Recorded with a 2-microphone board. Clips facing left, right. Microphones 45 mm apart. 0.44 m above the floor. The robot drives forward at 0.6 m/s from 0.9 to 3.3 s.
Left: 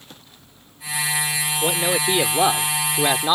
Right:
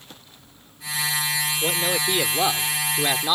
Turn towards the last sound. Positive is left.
turn(degrees=15)  # may be behind; listen again after turning